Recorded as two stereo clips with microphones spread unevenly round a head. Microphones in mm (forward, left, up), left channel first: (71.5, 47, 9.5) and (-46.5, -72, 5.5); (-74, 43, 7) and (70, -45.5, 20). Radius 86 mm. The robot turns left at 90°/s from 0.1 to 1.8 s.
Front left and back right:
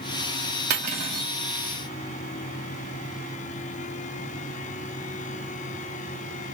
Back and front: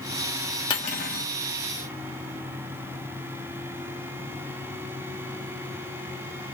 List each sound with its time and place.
0.7 s cutlery clinking: 150° right, 1.1 m; by 1.3 s 155° left, 1.1 m